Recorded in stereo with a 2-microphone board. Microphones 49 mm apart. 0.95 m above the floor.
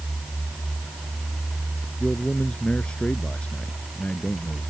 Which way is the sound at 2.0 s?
15° left (ahead or behind).